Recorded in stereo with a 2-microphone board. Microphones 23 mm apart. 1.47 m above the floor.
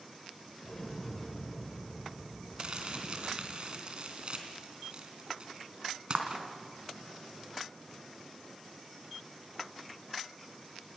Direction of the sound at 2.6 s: 45° right (ahead or behind).